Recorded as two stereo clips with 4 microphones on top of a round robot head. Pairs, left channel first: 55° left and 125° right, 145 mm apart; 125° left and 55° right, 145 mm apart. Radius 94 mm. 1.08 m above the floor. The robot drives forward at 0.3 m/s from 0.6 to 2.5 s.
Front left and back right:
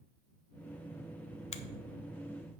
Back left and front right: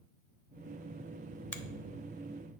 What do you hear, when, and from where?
1.5 s a finger snap: 50° left, 0.7 m